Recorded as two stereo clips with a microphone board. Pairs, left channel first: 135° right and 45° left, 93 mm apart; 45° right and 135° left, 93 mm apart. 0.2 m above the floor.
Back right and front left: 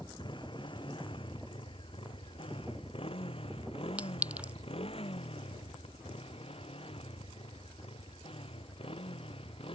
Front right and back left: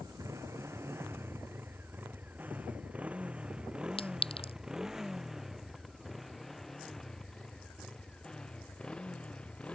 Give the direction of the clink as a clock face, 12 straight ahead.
1 o'clock.